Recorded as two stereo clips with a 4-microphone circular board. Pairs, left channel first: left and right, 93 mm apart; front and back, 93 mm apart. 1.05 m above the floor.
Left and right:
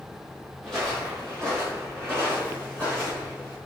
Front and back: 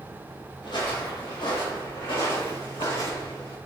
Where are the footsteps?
Straight ahead, 2.0 m; by 3.6 s 20° left, 5 m.